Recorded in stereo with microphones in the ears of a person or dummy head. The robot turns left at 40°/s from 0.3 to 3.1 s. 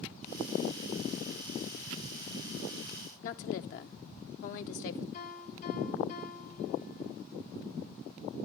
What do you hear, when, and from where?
3.2 s a woman speaking: 50° left (ahead or behind), 0.6 m
5.1 s a piano: 40° left (ahead or behind), 6 m